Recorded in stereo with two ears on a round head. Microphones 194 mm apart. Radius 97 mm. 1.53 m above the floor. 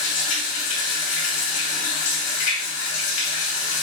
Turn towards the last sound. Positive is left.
turn(degrees=65)  # may be behind; listen again after turning